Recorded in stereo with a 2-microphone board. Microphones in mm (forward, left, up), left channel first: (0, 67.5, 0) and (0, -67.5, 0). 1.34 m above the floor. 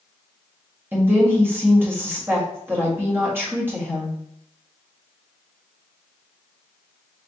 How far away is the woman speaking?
About 1.7 m.